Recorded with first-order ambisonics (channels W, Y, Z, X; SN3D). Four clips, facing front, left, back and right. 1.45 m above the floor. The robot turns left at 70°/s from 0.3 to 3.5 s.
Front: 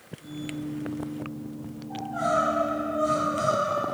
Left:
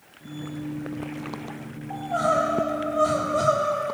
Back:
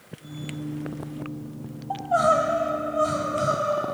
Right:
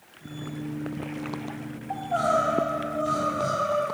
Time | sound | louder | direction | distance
1.9 | crying | left 1 dB, back 6 dB | 170° right | 3 m